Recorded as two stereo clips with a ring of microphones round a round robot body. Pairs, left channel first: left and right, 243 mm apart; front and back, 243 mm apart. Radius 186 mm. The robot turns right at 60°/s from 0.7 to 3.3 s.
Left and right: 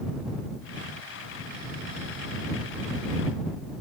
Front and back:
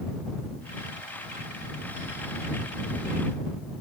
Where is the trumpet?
I don't hear a trumpet.